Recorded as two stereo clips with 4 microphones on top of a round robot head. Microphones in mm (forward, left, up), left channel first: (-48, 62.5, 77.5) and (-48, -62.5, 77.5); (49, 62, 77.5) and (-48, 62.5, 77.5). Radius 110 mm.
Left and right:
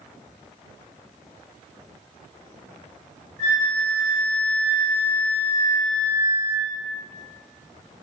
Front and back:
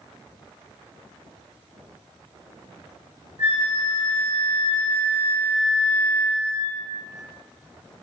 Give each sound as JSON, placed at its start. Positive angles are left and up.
{"t": 3.4, "sound": "a flute", "azimuth_deg": -40, "distance_m": 1.3}